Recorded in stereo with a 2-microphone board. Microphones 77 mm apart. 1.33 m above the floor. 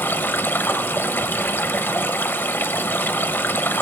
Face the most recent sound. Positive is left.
turn(degrees=25)  # may be behind; listen again after turning